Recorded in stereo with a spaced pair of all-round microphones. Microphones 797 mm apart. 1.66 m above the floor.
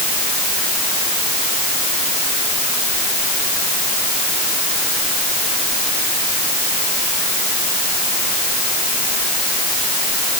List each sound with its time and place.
Only background noise.